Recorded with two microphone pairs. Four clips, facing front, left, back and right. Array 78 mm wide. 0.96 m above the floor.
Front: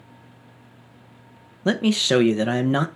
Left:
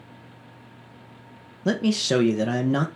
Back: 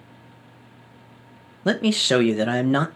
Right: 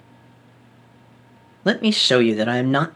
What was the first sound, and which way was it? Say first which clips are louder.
A man speaking: right 4 dB, even; 105° right.